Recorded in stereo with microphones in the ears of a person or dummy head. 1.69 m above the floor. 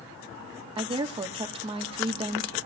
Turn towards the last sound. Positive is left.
turn(degrees=-30)  # may be behind; listen again after turning